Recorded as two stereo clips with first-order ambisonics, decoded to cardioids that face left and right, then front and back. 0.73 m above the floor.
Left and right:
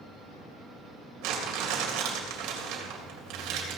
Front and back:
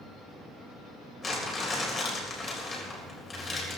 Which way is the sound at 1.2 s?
70° right.